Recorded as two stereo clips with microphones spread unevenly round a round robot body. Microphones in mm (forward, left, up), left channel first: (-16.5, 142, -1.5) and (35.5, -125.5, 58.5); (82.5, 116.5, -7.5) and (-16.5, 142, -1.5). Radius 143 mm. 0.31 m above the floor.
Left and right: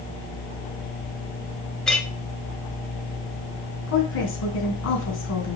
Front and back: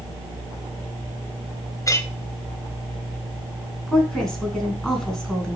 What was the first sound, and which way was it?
A clink, 25° left.